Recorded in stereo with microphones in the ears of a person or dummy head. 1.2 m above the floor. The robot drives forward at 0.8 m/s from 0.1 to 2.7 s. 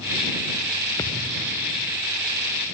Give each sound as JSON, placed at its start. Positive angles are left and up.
{"t": 1.0, "sound": "a thud", "side_deg": 15}